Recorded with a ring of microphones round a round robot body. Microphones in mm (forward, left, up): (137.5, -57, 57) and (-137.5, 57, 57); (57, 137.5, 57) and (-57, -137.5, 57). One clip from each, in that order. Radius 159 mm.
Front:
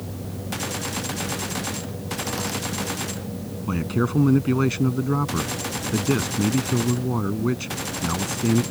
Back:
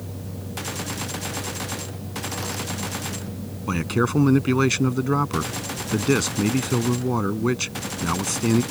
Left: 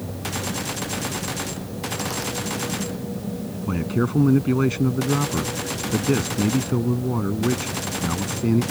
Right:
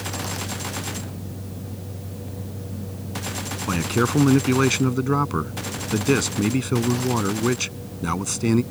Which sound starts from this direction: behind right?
A man speaking, at 3.7 s.